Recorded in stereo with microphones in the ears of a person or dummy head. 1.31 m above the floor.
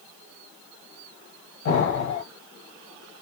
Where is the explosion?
80° left, 1.8 m.